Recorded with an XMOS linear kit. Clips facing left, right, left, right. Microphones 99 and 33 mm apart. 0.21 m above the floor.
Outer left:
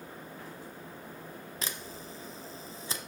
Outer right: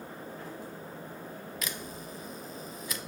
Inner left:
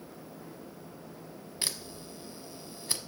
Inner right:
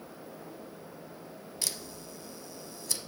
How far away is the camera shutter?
About 0.8 m.